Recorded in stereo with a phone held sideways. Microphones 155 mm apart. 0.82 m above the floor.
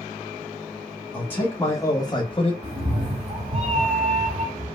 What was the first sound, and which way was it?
A man speaking, 10° left (ahead or behind).